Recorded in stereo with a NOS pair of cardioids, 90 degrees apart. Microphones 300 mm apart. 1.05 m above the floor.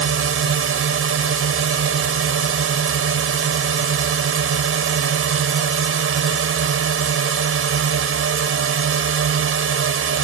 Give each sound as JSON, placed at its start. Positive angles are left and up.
{"t": 0.0, "sound": "a drone", "azimuth_deg": -45}